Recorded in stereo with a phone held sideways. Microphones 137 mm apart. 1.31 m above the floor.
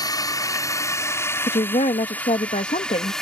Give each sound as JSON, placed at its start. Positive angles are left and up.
{"t": 0.0, "sound": "a drone", "side_deg": 25}
{"t": 1.5, "sound": "a woman speaking", "side_deg": 60}